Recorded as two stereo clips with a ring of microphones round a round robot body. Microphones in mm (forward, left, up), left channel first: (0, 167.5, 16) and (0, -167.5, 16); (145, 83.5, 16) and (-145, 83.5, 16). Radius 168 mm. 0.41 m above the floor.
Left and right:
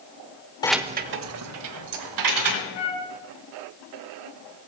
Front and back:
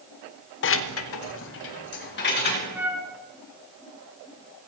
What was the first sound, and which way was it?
Keys jangling, 20° left.